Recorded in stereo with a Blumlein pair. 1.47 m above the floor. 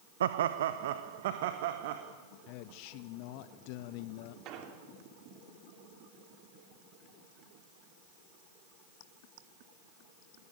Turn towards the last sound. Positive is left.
turn(degrees=-35)